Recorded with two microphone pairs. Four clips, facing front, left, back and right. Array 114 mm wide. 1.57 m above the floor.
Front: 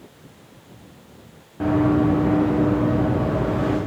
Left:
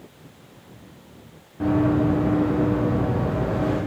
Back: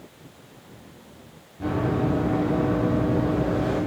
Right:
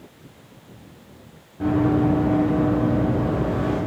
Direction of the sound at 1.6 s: 10° left.